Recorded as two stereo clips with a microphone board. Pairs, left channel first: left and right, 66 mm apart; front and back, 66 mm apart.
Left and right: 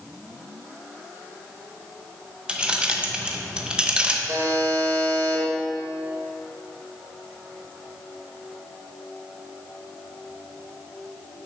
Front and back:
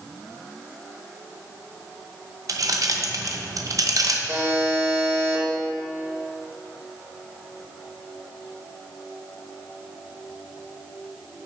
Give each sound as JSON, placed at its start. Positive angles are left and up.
{"t": 2.5, "sound": "keys jangling", "azimuth_deg": -165, "distance_m": 0.7}
{"t": 4.3, "sound": "a buzzer", "azimuth_deg": -140, "distance_m": 2.0}